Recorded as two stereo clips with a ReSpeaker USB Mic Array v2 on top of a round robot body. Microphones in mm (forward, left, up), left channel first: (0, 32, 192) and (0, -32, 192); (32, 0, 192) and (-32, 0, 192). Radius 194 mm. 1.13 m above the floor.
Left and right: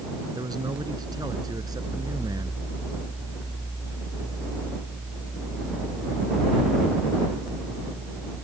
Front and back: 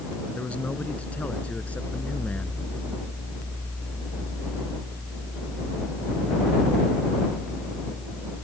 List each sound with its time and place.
0.3 s a man speaking: 75° right; by 2.6 s 70° right